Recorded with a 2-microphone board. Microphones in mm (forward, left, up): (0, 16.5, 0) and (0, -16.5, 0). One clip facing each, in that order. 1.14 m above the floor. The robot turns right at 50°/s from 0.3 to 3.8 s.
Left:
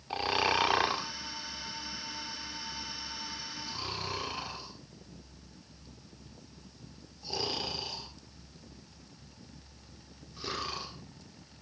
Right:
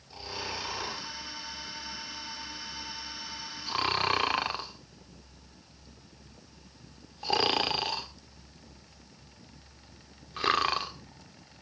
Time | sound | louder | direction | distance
0.1 | snoring | left 9 dB | 80° left | 1.7 m